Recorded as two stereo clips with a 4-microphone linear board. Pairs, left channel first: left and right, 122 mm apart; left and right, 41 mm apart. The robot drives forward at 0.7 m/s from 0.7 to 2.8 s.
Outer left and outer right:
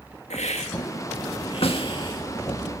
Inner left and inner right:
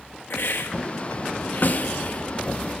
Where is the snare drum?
50° left (ahead or behind), 1.6 m; by 1.9 s 45° left (ahead or behind), 1.7 m.